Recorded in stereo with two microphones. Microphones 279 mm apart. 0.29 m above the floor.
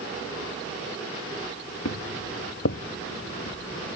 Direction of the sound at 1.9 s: 70° left (ahead or behind).